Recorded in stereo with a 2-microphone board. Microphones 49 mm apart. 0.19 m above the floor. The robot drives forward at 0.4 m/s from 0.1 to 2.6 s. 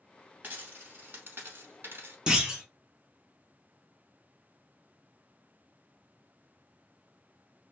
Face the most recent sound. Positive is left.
turn(degrees=-15)  # may be behind; listen again after turning